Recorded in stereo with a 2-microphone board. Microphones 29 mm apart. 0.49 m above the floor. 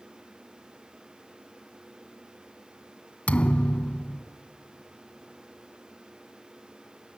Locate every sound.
3.3 s a thud: 55° left (ahead or behind), 0.5 m